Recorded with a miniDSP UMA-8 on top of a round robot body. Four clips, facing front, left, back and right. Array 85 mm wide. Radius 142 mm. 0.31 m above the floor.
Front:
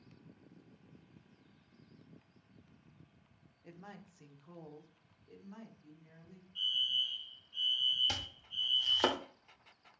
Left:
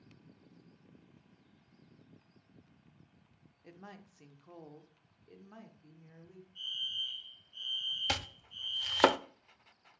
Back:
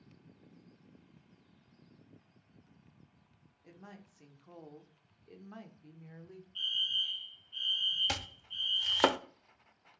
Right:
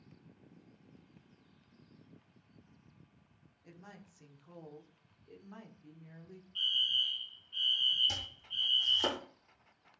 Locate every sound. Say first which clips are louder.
3.6 s a woman speaking: left 3 dB, front 1 dB; 70° left, 1.4 m; by 6.5 s 170° right, 1.7 m
6.5 s a fire alarm: right 8 dB, front 1 dB; 120° right, 3 m
8.1 s chopping: left 7 dB, back 4 dB; 110° left, 0.7 m